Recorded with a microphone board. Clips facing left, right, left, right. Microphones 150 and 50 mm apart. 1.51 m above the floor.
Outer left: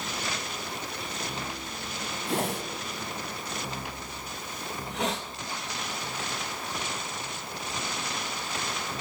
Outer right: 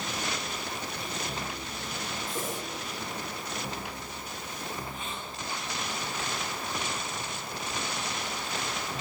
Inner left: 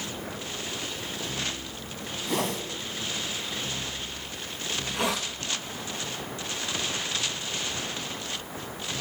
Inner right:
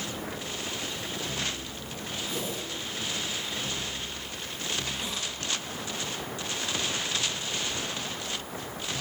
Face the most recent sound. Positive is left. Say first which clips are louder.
# outer left 10 dB, inner left 6 dB
turn(degrees=80)